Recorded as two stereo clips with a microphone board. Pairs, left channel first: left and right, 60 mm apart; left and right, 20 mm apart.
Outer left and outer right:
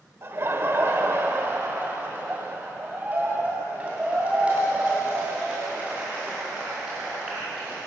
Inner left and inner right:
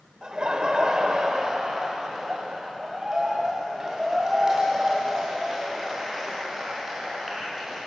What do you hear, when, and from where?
0.2 s laughter: 45° right (ahead or behind), 1.2 m; by 7.8 s 15° right (ahead or behind), 4.5 m